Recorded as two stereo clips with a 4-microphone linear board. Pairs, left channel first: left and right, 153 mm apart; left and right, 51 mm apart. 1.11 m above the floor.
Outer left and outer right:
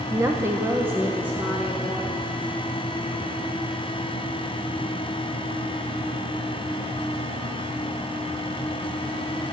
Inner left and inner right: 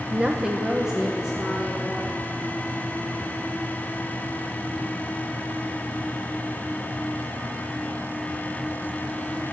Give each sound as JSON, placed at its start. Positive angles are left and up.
{"t": 0.1, "sound": "a woman speaking", "side_deg": -20, "distance_m": 0.6}